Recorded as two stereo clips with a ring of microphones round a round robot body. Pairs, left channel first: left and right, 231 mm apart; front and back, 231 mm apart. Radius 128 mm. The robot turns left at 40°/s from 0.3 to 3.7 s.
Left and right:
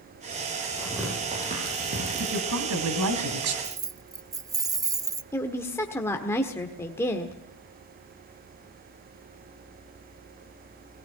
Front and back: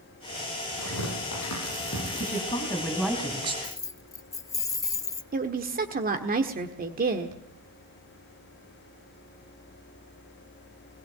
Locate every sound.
0.8 s tearing paper: straight ahead, 10 m; by 2.6 s 75° right, 10 m
2.2 s a woman speaking: 55° right, 3 m; by 3.5 s 110° right, 3 m
3.6 s keys jangling: 45° right, 0.7 m
5.3 s a woman speaking: 165° left, 1.5 m